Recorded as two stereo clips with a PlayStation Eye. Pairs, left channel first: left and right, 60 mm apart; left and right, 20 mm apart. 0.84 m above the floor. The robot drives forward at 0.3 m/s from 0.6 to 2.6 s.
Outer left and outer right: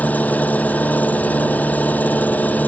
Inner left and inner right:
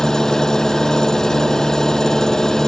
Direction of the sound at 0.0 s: 25° left (ahead or behind).